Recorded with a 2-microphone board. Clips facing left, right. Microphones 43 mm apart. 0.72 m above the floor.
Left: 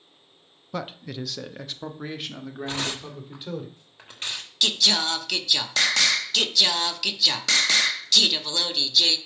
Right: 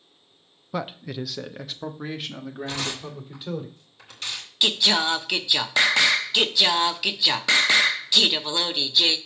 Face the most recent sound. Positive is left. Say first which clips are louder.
# right 2 dB
turn(degrees=-20)  # may be behind; listen again after turning